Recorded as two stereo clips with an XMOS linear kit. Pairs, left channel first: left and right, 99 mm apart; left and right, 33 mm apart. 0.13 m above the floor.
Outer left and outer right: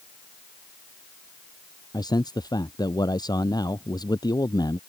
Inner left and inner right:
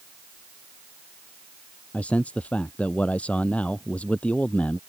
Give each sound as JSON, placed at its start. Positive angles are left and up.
{"t": 1.9, "sound": "a man speaking", "side_deg": 45}